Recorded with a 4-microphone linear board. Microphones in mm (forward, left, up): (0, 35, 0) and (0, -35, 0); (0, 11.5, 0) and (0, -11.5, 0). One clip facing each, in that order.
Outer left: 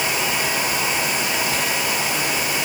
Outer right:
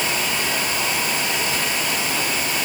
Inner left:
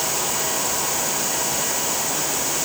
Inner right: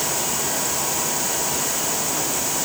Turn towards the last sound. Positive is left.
No sound to turn to.